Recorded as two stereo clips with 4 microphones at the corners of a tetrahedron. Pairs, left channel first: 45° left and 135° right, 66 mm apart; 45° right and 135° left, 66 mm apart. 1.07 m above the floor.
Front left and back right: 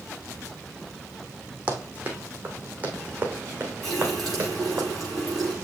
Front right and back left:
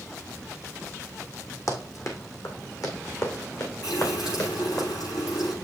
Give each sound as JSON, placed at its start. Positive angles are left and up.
{"t": 1.7, "sound": "running footsteps", "azimuth_deg": -70, "distance_m": 2.5}
{"t": 3.8, "sound": "a running tap", "azimuth_deg": -40, "distance_m": 6.0}